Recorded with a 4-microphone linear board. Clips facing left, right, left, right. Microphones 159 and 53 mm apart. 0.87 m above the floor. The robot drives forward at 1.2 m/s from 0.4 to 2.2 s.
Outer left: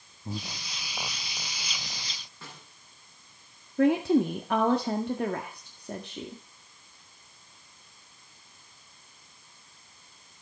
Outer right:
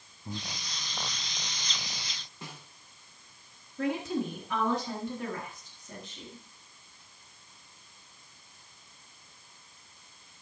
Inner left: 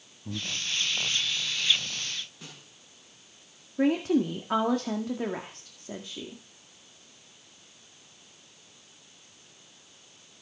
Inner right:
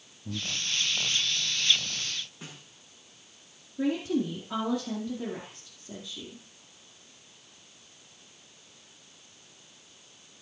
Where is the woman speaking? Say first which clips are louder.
Outer left 9 dB, inner left 4 dB; 65° left (ahead or behind), 1.8 m.